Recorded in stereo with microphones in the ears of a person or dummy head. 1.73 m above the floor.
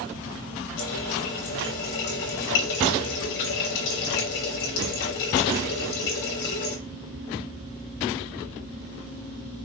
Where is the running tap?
65° left (ahead or behind), 3.5 m.